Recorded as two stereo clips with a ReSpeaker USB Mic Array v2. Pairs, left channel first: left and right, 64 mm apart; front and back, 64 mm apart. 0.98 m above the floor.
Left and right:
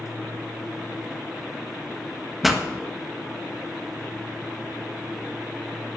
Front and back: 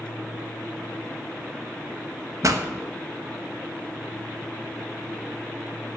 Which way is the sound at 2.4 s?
175° right.